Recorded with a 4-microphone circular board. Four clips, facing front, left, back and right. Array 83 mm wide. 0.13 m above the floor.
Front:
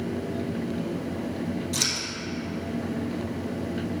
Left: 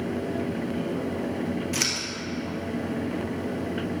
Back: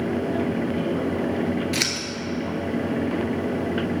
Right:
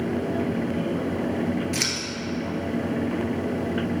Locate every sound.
1.7 s scissors: 175° left, 1.5 m